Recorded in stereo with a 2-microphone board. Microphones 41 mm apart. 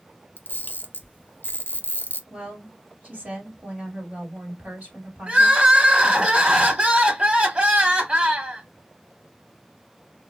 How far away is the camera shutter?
About 0.6 m.